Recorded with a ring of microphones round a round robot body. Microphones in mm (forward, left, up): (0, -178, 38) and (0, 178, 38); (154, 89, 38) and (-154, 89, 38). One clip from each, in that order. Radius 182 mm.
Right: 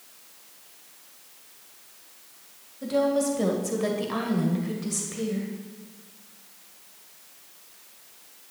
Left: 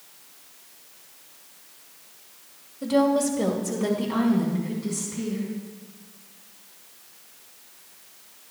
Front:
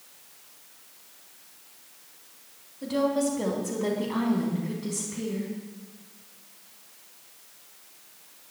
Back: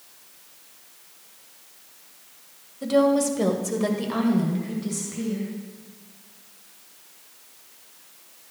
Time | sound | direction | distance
2.8 | a woman speaking | 165° left | 2 m